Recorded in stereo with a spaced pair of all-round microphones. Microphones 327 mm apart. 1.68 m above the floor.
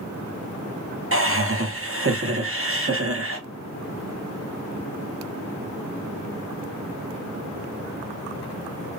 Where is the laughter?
40° right (ahead or behind), 0.9 m.